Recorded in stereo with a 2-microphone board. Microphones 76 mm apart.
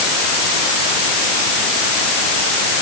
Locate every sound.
Only background noise.